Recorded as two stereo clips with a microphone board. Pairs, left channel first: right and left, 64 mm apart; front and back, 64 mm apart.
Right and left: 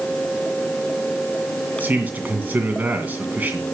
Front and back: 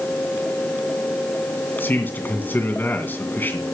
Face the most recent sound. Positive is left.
turn(degrees=40)